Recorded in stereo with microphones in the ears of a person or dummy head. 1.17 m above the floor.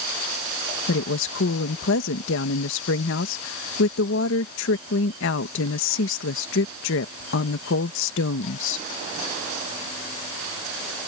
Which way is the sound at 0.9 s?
65° left (ahead or behind).